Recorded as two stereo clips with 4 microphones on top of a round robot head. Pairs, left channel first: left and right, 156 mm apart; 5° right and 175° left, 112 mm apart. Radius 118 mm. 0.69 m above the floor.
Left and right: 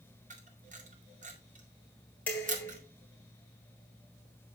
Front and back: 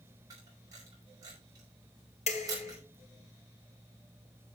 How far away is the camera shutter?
About 3.5 m.